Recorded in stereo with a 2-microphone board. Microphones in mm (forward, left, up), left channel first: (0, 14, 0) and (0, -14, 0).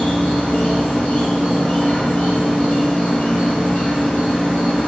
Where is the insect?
60° left (ahead or behind), 0.9 m.